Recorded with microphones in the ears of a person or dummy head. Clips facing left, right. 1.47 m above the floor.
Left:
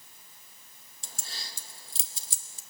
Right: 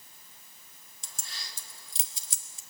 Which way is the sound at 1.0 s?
30° left (ahead or behind).